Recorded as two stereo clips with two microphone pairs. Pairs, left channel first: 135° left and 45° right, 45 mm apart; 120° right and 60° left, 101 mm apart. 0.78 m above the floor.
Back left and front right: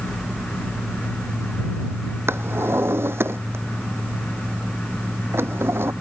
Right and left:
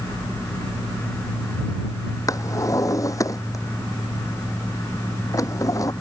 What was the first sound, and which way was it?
A drawer, 65° right.